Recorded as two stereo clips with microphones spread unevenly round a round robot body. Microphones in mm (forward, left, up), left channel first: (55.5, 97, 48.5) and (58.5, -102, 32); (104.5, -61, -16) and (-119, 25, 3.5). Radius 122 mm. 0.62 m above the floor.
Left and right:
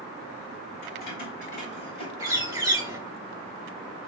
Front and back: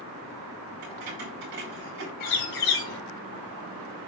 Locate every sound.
0.8 s keys jangling: 145° left, 3 m; by 2.1 s 160° left, 3 m
2.2 s a bird: 20° right, 3.5 m